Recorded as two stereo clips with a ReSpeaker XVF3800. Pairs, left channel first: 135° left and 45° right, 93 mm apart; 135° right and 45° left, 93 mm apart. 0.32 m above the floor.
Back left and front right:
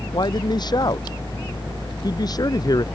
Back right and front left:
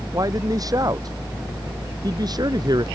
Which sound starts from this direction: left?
A man speaking, at 0.1 s.